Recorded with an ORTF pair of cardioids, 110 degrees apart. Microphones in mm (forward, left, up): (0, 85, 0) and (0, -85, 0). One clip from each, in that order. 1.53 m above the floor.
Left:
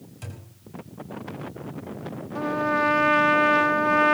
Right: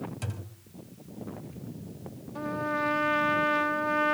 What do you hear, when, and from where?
0.2 s a thud: 25° right, 4.5 m
2.4 s a trumpet: 25° left, 0.6 m